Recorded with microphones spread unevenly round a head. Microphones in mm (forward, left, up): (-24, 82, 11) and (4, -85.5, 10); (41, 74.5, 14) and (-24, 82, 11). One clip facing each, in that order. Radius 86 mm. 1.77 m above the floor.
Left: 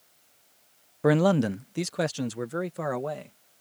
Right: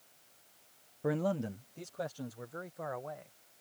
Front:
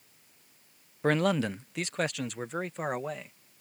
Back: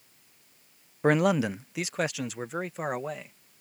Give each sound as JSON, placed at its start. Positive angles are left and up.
{"t": 1.0, "sound": "a man speaking", "azimuth_deg": 100}